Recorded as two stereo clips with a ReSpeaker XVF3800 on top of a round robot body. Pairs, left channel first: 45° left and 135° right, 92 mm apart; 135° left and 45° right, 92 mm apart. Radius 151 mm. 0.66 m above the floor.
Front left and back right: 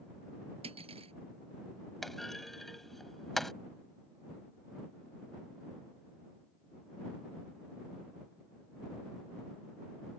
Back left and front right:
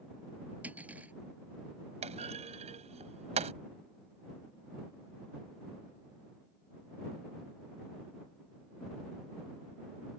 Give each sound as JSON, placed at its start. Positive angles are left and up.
{"t": 0.6, "sound": "cutlery clinking", "azimuth_deg": -120}
{"t": 2.0, "sound": "a clunk", "azimuth_deg": -40}